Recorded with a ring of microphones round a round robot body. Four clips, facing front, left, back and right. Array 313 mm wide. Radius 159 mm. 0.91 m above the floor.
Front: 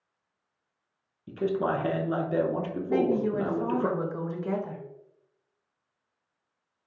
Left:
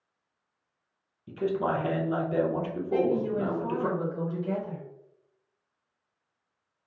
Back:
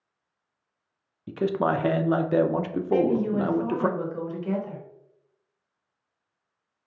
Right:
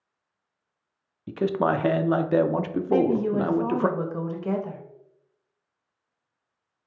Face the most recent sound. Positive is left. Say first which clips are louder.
# right 4 dB, back 2 dB
turn(degrees=-75)